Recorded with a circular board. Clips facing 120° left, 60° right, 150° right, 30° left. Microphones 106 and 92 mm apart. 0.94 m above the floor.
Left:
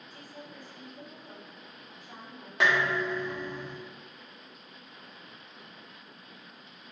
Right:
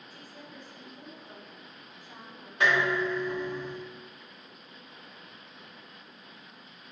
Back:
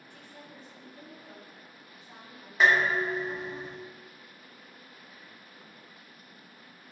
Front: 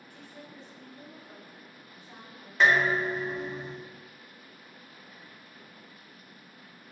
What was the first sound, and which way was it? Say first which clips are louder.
A woman speaking: left 2 dB, front 2 dB; 175° right.